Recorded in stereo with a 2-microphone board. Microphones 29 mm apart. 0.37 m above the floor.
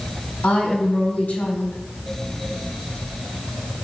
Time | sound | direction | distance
0.4 | a woman speaking | 60° left (ahead or behind) | 3 m